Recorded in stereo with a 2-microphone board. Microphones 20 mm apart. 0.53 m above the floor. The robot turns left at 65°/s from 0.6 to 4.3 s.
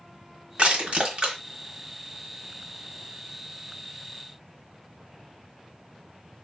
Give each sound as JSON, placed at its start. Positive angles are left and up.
{"t": 0.6, "sound": "crushing", "side_deg": -85, "distance_m": 1.4}